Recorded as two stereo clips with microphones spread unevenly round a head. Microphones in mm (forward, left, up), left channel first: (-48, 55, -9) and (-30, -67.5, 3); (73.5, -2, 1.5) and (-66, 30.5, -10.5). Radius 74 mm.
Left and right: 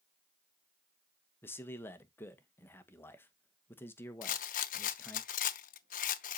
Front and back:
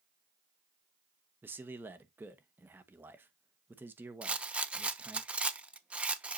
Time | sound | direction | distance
1.4 | a man speaking | 120° left | 0.8 m
4.2 | a rattle | 85° left | 0.6 m